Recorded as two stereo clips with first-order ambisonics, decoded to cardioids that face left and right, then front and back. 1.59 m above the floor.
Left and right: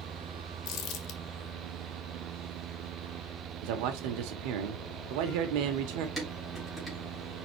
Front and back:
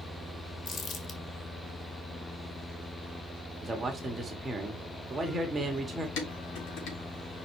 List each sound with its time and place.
0.7 s crumpling: 55° left, 1.8 m
3.6 s a man speaking: 100° right, 1.4 m
6.2 s dishes clattering: 5° right, 3.5 m